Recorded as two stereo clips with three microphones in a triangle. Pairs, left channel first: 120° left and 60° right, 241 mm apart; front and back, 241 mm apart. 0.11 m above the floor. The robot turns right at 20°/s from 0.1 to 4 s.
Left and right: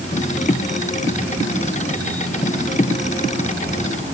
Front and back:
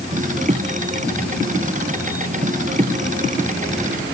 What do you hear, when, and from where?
Only background noise.